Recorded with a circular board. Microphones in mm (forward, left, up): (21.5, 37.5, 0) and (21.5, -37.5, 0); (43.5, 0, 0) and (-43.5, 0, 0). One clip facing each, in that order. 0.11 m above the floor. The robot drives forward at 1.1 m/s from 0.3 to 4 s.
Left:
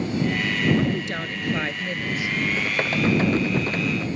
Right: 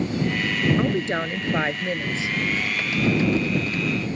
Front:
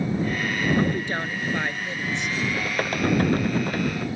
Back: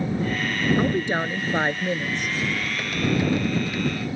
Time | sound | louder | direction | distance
0.8 | a woman speaking | right 2 dB, back 2 dB | 110° right | ?
2.5 | typing on a keyboard | left 1 dB, front 2 dB | 40° left | ?